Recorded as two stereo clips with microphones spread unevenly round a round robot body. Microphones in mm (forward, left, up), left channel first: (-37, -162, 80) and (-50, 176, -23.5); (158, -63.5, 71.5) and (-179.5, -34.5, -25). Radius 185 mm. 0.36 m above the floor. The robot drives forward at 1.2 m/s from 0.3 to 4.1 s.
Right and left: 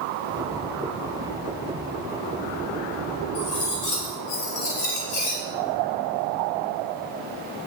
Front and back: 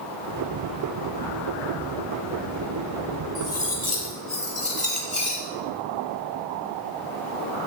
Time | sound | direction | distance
3.4 | cutlery clinking | 85° right | 6 m